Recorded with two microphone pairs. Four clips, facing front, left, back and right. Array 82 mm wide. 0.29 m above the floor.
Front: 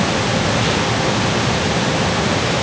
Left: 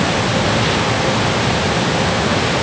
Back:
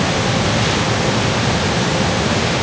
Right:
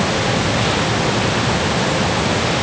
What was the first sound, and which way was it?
Only background noise.